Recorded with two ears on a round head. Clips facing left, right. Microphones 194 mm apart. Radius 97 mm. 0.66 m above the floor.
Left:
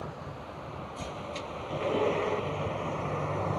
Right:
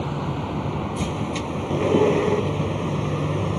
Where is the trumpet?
I don't hear a trumpet.